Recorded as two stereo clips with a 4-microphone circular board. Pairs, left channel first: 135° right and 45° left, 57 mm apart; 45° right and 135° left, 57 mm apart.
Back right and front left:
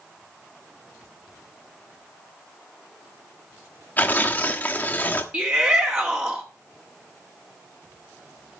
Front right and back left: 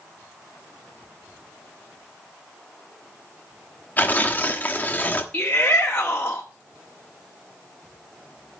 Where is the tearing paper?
95° right, 1.3 m.